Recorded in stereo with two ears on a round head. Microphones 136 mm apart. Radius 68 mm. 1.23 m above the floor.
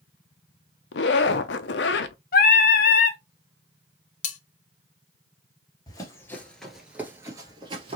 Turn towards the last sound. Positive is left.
turn(degrees=-40)  # may be behind; listen again after turning